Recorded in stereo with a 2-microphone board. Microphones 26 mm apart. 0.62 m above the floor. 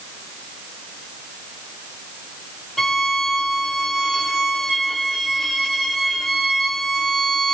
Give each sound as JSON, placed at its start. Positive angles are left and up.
{"t": 2.8, "sound": "a violin", "side_deg": 15, "distance_m": 0.8}